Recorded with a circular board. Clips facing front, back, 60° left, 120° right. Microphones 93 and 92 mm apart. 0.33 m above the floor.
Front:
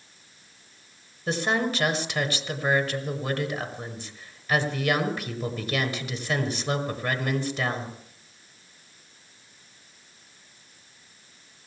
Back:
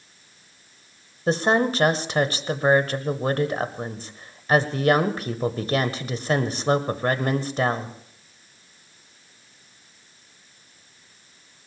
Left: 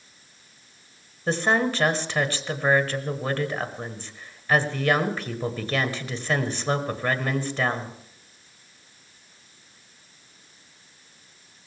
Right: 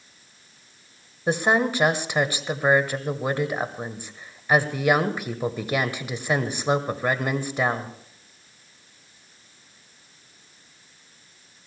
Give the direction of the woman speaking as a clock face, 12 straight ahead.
6 o'clock.